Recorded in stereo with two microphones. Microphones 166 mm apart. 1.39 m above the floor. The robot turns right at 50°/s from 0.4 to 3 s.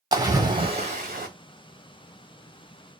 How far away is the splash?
About 1.0 m.